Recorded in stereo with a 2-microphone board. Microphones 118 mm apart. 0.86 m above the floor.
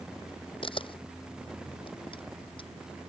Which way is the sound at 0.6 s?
45° left (ahead or behind).